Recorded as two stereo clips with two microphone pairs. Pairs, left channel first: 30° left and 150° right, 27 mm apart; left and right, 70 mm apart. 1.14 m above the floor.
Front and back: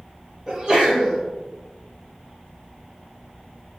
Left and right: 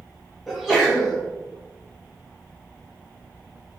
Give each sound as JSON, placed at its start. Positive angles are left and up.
{"t": 0.5, "sound": "a sneeze", "azimuth_deg": -175, "distance_m": 0.7}